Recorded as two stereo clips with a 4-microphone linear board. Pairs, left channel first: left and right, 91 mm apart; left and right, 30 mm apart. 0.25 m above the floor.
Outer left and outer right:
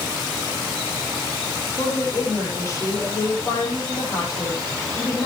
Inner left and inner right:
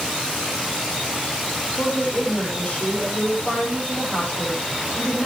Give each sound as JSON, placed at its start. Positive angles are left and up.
{"t": 1.7, "sound": "a woman speaking", "side_deg": 35, "distance_m": 9.0}